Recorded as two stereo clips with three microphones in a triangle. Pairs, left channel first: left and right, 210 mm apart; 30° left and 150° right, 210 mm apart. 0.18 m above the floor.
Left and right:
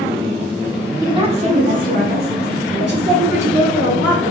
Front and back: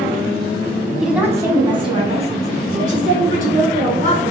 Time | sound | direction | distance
1.0 | a woman speaking | 65° right | 1.0 m